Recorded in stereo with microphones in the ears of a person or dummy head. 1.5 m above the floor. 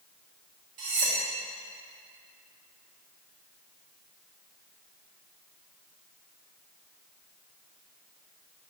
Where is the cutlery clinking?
70° right (ahead or behind), 1.9 m.